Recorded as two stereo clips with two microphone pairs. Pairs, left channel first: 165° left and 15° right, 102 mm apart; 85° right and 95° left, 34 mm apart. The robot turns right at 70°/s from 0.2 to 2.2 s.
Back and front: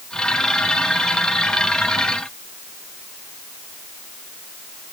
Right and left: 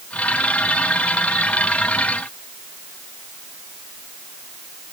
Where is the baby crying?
No baby crying in this recording.